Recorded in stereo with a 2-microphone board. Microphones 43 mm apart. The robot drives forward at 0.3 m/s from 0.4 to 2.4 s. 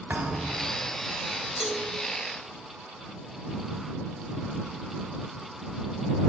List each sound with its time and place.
0.1 s a thud: 35° right (ahead or behind), 3 m; by 0.8 s 30° right (ahead or behind), 3 m
1.6 s a cowbell: 5° right (ahead or behind), 1.6 m